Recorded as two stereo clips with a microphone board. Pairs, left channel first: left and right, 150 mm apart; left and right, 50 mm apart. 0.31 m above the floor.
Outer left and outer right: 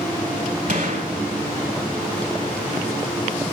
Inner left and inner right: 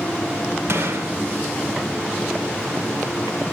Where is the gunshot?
65° right (ahead or behind), 0.9 m.